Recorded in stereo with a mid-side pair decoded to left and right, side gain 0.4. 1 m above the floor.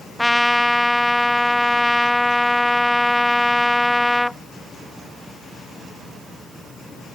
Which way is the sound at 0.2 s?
5° left.